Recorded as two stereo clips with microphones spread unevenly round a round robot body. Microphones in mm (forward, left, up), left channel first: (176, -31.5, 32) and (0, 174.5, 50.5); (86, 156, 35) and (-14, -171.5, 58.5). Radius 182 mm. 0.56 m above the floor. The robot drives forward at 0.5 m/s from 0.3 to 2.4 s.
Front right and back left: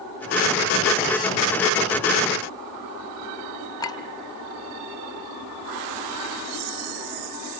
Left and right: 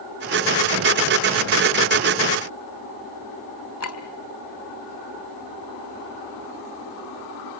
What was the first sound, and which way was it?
A clink, 25° left.